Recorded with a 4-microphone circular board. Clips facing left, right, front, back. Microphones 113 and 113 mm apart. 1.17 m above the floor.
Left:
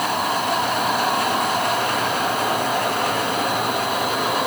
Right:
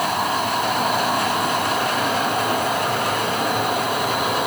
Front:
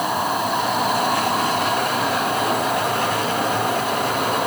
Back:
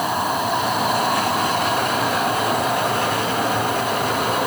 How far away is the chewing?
No chewing in this recording.